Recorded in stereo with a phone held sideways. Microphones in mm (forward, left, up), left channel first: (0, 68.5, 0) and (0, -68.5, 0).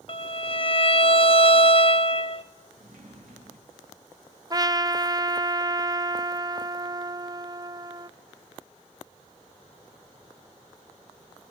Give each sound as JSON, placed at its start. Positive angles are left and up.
{"t": 0.1, "sound": "a violin", "side_deg": 40, "distance_m": 1.0}
{"t": 2.8, "sound": "a sliding door", "side_deg": -85, "distance_m": 7.5}
{"t": 4.5, "sound": "a trumpet", "side_deg": -30, "distance_m": 0.6}